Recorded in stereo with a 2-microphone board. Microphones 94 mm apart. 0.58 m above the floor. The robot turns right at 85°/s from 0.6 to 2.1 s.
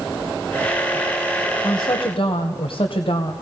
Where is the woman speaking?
35° left, 2.5 m; by 3.3 s 75° left, 2.5 m.